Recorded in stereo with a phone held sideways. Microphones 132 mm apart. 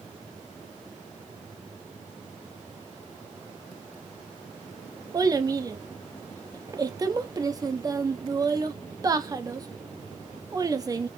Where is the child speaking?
25° right (ahead or behind), 0.7 m.